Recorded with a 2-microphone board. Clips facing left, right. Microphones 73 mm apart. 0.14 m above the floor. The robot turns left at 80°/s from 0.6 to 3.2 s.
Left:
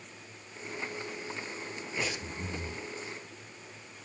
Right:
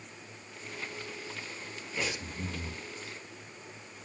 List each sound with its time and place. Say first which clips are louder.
2.0 s breathing: right 1 dB; 10° left, 3.5 m; by 2.8 s 60° right, 3.5 m